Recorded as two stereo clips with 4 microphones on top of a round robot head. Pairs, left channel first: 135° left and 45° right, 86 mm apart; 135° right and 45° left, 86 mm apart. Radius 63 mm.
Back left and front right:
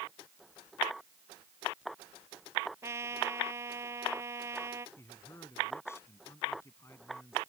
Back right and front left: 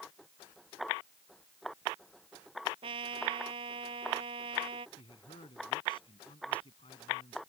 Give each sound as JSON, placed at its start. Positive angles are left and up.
{"t": 2.8, "sound": "a trumpet", "azimuth_deg": 15}
{"t": 5.0, "sound": "a man speaking", "azimuth_deg": -165}